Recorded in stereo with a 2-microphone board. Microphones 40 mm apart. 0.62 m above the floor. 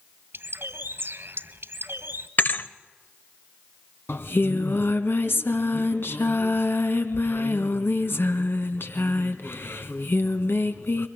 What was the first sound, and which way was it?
A bird, 70° right (ahead or behind).